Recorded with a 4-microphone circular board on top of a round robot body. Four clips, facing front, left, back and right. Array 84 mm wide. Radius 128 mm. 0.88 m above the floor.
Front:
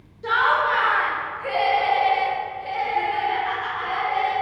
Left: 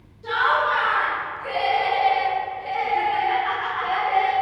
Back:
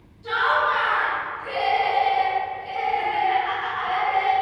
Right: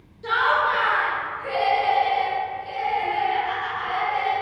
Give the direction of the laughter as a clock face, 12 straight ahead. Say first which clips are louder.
Even, front 1 dB; 1 o'clock.